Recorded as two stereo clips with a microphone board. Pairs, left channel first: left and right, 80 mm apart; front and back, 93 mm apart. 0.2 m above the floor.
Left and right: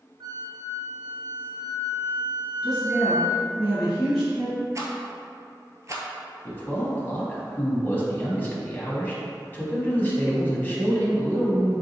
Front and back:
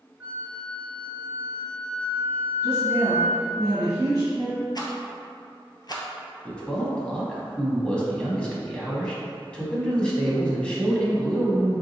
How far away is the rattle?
About 0.7 m.